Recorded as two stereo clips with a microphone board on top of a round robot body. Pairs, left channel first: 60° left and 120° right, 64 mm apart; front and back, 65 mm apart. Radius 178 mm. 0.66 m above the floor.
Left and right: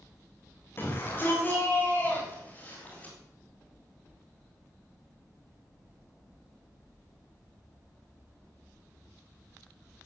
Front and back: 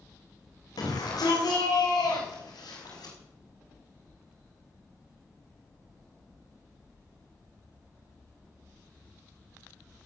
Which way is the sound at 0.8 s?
5° left.